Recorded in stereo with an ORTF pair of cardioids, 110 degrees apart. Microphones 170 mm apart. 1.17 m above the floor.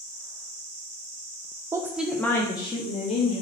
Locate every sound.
1.7 s a woman speaking: 20° right, 0.8 m; by 3.4 s 45° left, 1.3 m